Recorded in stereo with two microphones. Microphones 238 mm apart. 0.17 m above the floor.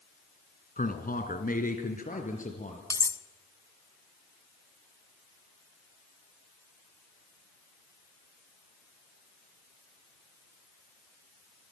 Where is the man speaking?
35° left (ahead or behind), 1.6 m; by 2.8 s 30° left (ahead or behind), 3.5 m.